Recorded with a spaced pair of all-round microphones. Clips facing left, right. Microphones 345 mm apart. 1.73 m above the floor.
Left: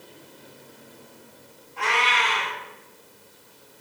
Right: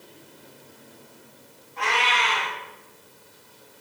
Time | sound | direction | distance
1.8 | a cat meowing | 35° left (ahead or behind) | 1.4 m